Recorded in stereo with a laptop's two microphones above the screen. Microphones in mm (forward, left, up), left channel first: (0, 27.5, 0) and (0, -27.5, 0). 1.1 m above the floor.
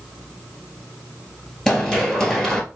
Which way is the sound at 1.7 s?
10° left (ahead or behind).